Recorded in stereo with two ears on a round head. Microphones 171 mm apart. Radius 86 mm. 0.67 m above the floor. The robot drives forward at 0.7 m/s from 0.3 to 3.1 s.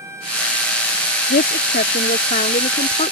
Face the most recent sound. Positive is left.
turn(degrees=35)  # may be behind; listen again after turning